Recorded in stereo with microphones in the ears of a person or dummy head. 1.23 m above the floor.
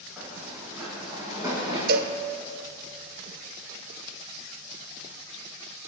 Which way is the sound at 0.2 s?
5° right (ahead or behind).